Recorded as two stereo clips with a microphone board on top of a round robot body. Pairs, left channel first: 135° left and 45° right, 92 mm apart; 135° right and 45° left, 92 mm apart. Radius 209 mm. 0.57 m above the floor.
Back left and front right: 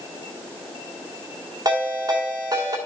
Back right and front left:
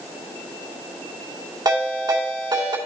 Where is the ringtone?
Straight ahead, 2.5 m.